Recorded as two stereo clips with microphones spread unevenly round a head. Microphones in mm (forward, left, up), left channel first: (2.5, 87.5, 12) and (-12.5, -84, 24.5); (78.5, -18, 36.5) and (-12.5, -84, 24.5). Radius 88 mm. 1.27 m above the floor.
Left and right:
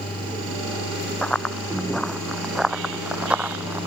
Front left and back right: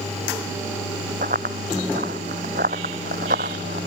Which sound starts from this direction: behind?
Running footsteps, at 1.2 s.